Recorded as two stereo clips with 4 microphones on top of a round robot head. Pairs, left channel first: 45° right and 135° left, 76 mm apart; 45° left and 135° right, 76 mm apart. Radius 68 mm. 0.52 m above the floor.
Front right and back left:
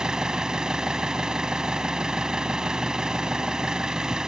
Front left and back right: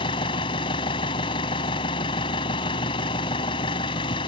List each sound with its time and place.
0.0 s an engine running: 55° left